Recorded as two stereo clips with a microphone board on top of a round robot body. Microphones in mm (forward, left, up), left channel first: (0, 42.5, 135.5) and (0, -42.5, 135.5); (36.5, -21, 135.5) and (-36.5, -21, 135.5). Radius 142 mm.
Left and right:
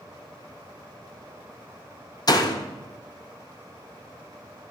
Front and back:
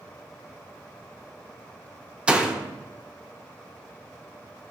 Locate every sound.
2.3 s a door slam: 110° left, 1.0 m